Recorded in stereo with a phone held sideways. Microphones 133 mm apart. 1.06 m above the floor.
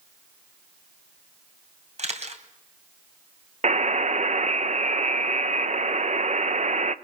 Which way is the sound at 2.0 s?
60° right (ahead or behind).